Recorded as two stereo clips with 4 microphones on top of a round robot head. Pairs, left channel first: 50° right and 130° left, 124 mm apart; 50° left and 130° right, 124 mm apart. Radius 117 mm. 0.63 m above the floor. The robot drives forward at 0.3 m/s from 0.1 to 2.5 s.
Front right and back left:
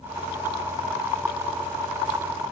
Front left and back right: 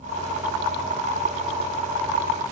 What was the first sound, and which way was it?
Only background noise.